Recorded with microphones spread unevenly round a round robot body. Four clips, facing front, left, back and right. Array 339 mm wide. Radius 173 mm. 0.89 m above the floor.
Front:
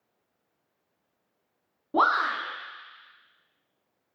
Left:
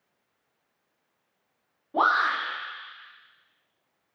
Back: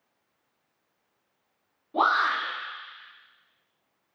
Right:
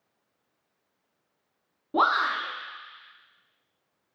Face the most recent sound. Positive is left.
turn(degrees=-40)